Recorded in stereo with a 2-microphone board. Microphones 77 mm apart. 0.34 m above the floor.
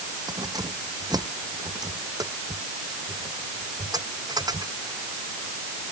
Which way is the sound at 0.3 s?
55° right (ahead or behind).